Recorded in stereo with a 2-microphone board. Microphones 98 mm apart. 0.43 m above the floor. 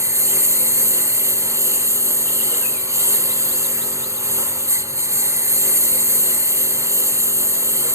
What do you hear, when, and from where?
0.0 s a lawn mower: 30° right (ahead or behind)